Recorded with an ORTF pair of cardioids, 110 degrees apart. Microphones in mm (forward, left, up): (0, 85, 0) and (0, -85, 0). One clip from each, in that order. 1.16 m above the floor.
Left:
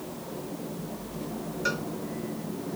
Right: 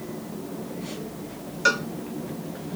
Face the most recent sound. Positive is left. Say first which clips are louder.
# right 9 dB
turn(degrees=-50)